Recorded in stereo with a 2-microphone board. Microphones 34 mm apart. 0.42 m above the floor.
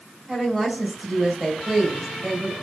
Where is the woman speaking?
5° right (ahead or behind), 2.5 m.